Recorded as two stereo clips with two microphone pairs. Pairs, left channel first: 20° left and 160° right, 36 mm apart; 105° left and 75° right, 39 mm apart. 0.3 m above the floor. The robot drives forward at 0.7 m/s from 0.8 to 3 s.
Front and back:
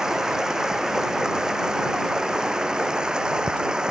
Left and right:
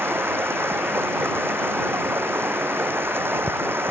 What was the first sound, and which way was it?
Running water, 85° right.